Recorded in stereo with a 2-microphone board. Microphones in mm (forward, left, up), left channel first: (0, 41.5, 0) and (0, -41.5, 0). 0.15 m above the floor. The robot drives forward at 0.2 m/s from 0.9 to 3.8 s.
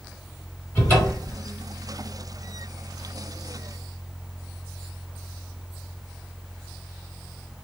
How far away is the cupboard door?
About 1.7 m.